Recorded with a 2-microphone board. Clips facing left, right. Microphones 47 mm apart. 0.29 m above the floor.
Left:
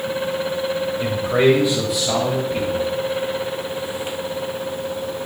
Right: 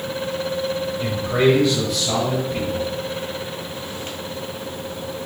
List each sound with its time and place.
1.0 s a man speaking: 20° left (ahead or behind), 1.1 m; by 2.9 s 10° left (ahead or behind), 1.8 m